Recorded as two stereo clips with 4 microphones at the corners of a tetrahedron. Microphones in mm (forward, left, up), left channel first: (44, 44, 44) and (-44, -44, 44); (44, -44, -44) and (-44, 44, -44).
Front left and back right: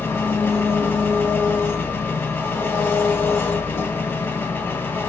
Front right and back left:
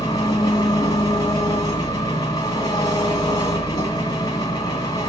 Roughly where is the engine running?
Ahead.